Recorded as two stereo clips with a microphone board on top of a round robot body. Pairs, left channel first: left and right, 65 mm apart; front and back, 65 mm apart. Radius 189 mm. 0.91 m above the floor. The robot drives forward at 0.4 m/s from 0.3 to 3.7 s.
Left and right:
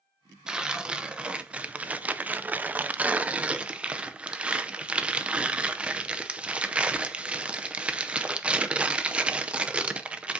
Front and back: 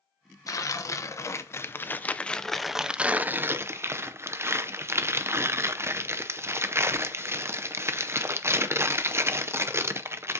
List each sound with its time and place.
0.5 s tearing paper: 15° right, 1.1 m; by 10.4 s 155° right, 0.8 m